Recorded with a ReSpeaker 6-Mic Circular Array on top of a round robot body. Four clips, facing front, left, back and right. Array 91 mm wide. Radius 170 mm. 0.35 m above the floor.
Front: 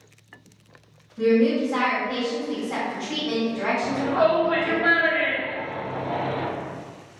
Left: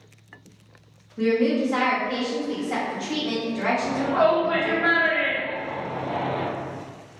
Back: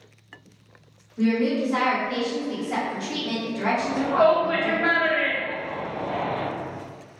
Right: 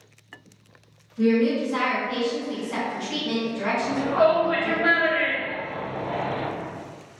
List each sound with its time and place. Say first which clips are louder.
1.2 s a woman speaking: even, front 3 dB; 105° left, 1.2 m
3.8 s a shout: right 2 dB, back 2 dB; 170° left, 1.9 m